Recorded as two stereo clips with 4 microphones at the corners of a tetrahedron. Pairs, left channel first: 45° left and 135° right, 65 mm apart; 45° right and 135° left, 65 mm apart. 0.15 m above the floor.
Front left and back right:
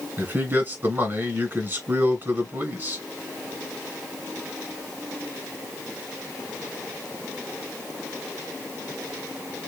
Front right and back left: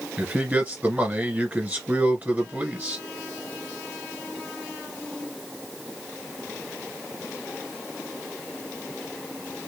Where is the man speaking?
170° right, 2 m.